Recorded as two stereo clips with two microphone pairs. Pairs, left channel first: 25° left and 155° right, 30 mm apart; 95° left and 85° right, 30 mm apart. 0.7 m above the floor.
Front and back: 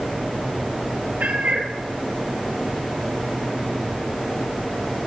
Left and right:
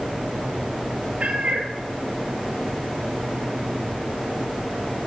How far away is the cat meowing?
About 2.5 m.